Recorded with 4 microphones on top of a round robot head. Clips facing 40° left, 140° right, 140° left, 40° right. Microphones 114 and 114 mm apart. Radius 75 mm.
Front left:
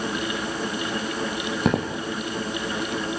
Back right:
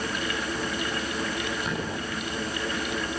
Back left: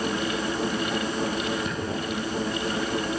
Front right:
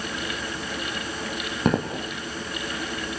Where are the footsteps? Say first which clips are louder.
Front left 8 dB, front right 7 dB; 5° left, 3 m.